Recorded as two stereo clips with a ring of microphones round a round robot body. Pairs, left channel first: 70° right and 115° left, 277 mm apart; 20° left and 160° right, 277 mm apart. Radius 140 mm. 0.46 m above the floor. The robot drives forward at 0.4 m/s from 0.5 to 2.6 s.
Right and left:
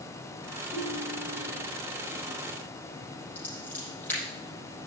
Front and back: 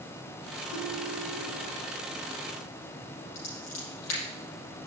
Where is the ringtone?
35° left, 7.5 m.